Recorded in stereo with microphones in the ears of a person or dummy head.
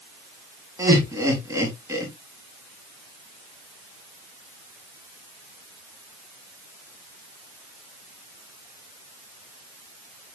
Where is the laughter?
20° right (ahead or behind), 2.5 m.